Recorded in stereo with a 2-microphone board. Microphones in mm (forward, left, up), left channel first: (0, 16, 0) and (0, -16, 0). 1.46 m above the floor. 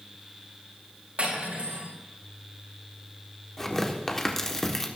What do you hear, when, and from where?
1.2 s cutlery clinking: 45° right (ahead or behind), 5.5 m
3.6 s tearing paper: 15° left (ahead or behind), 1.3 m